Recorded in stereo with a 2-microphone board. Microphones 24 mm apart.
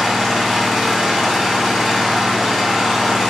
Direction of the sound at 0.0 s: Centre (ahead or behind).